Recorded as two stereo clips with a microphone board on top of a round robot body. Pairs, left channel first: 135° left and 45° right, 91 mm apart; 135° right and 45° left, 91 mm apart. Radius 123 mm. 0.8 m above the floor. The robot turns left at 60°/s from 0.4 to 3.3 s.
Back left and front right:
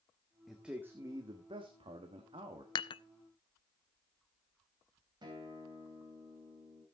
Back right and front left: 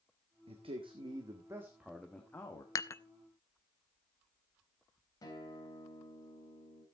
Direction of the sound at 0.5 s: 45° left.